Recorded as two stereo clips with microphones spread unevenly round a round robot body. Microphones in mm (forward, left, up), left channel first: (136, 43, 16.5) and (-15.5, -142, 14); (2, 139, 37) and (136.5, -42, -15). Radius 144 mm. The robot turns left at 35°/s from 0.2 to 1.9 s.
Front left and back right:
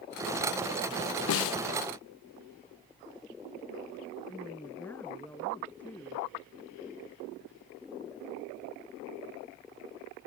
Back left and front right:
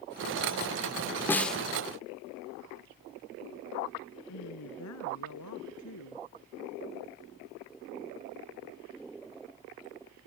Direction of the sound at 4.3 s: 135° left.